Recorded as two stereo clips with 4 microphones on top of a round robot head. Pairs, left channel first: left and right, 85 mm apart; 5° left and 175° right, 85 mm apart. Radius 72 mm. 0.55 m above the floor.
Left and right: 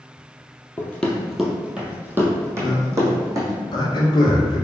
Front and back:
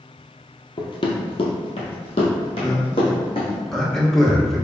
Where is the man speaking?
90° left, 1.3 m.